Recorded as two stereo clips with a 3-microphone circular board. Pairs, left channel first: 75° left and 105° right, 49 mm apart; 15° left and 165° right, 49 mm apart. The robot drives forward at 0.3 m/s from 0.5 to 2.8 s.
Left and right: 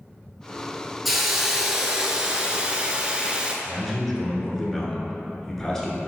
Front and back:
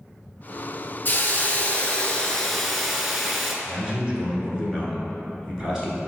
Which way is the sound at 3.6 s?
140° left.